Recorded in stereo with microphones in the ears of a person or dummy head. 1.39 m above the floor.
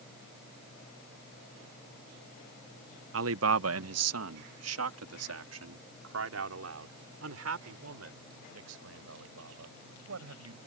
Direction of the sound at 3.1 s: 70° right (ahead or behind).